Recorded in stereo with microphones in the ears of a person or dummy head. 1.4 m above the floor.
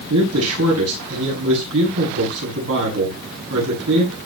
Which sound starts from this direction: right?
A man speaking, at 0.1 s.